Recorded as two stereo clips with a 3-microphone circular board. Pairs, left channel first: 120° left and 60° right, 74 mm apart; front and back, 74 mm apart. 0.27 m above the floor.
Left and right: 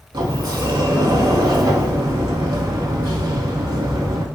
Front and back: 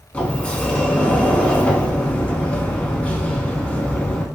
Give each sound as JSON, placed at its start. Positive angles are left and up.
{"t": 0.1, "sound": "a sliding door", "azimuth_deg": -70, "distance_m": 0.5}